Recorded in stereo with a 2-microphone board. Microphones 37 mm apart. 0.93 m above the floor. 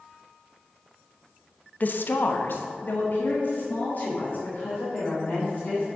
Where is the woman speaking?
50° left (ahead or behind), 0.7 m; by 5.8 s 45° left (ahead or behind), 4 m.